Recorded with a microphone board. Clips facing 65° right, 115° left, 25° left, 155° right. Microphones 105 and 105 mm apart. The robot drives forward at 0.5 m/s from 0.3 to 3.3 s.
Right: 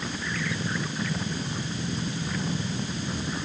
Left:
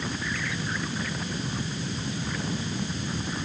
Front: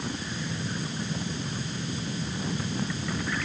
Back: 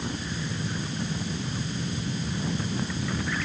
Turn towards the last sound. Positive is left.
No sound to turn to.